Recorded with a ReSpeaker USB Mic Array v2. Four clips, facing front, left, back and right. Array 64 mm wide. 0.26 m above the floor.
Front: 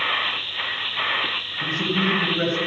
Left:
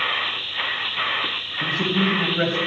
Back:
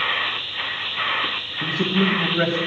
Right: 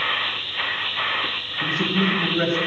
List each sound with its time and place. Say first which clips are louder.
1.6 s a man speaking: even, back 2 dB; 155° left, 1.0 m